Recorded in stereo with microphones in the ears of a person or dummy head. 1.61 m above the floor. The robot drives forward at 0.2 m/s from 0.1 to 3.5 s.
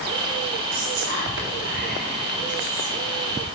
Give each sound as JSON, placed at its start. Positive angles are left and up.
{"t": 0.7, "sound": "whispering", "side_deg": -65, "distance_m": 1.8}